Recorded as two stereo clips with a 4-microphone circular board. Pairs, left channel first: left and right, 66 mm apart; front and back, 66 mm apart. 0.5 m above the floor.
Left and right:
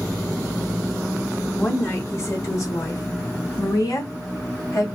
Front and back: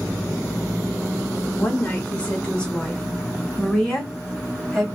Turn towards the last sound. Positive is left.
turn(degrees=85)